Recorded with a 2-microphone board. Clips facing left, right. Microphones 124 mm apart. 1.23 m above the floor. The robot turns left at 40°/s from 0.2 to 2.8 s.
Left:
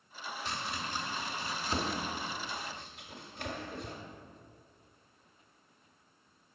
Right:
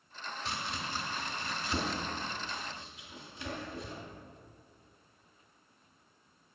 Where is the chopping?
5° right (ahead or behind), 1.4 m; by 4.0 s 65° left (ahead or behind), 1.4 m.